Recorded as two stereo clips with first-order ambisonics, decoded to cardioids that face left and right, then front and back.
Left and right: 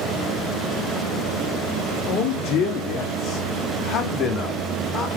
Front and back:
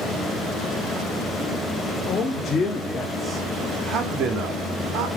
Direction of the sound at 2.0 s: 60° left.